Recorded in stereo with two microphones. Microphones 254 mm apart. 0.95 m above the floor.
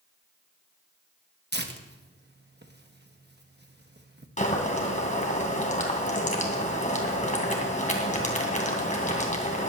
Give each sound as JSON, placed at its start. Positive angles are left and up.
{"t": 1.5, "sound": "tearing paper", "side_deg": -40, "distance_m": 1.2}
{"t": 4.4, "sound": "boiling", "side_deg": 30, "distance_m": 2.5}